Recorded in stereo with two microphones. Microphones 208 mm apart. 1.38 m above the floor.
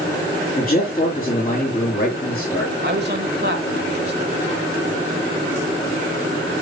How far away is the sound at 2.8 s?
About 2.0 m.